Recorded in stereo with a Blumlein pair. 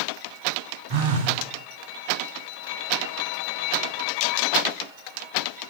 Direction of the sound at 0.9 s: 45° right.